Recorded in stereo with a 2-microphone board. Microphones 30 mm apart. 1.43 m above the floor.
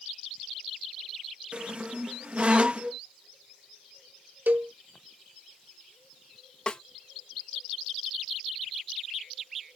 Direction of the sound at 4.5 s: 65° right (ahead or behind).